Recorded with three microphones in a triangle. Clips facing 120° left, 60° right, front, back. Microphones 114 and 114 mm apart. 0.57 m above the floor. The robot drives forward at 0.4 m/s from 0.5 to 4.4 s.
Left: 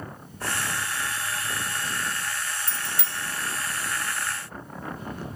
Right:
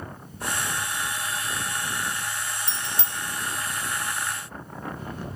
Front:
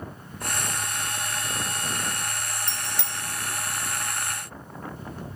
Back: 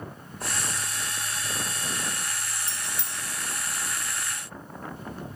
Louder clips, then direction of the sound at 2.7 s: Right 1 dB, front 3 dB; straight ahead.